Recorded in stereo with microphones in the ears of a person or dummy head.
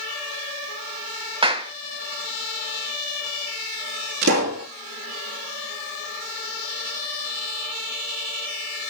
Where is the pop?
65° right (ahead or behind), 4 m.